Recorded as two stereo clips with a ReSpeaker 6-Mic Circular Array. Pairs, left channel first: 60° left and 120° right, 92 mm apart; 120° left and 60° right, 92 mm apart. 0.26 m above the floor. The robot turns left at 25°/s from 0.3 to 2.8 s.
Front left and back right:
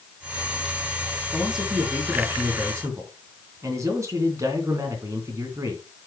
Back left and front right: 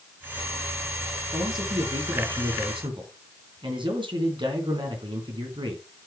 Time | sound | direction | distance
1.3 | a man speaking | 30° right | 3 m